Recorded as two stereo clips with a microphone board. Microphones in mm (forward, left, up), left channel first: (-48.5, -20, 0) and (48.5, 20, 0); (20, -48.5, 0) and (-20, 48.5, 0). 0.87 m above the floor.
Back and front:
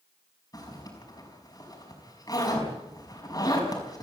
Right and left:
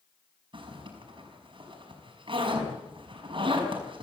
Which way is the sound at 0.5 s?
150° left.